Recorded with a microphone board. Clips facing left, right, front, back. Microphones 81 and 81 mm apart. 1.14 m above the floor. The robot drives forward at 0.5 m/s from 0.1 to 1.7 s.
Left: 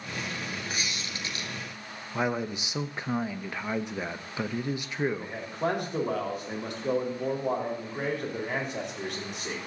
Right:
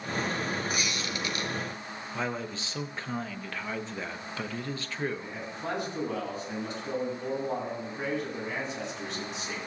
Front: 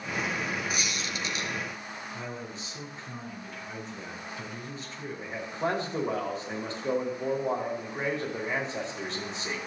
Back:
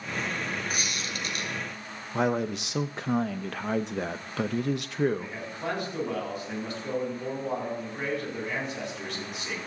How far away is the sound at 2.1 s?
About 0.7 m.